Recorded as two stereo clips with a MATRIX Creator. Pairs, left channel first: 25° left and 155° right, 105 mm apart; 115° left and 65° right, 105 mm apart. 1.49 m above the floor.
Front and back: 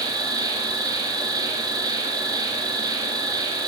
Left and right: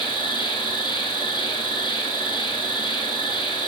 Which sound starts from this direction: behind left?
An insect, at 0.0 s.